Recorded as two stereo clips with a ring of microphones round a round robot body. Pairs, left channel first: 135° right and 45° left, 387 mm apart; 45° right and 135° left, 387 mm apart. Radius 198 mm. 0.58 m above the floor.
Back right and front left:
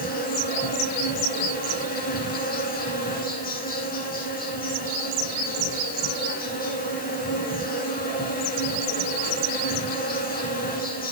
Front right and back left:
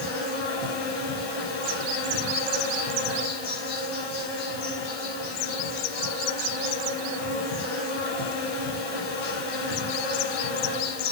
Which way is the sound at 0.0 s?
65° right.